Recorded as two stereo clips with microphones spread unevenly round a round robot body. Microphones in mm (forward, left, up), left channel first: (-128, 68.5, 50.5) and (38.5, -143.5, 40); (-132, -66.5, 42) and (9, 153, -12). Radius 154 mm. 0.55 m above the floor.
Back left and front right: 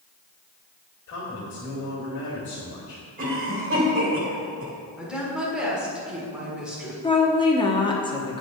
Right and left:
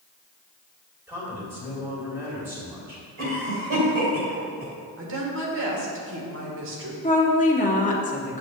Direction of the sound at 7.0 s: 175° right.